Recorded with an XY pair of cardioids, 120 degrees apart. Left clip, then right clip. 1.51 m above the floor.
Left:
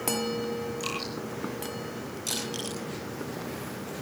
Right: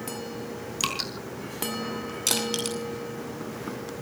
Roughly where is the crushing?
Ahead right.